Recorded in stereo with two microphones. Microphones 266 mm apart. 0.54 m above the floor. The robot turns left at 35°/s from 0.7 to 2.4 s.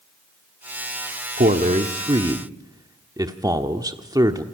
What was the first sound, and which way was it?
A man speaking, 35° right (ahead or behind).